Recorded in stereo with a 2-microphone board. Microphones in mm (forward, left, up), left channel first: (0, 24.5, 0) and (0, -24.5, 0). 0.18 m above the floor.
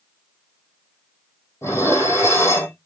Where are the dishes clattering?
75° left (ahead or behind), 4.5 m.